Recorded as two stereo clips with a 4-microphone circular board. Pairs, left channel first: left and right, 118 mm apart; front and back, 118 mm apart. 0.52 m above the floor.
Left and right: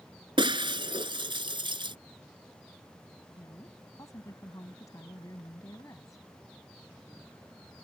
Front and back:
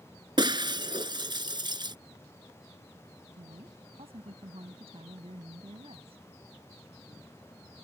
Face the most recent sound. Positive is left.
turn(degrees=150)